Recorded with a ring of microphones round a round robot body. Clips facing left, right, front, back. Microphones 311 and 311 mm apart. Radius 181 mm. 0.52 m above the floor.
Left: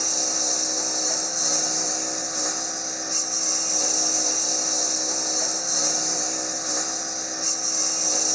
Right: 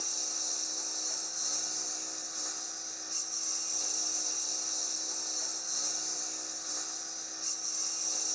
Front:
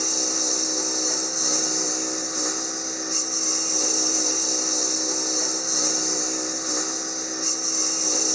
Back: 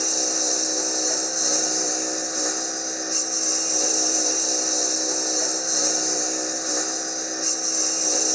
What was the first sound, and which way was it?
A lawn mower, 80° left.